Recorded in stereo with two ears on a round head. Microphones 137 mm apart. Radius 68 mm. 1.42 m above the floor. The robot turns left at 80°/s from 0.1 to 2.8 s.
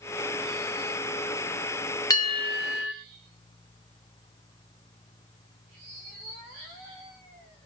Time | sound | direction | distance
2.1 | a bell | 155° left | 3 m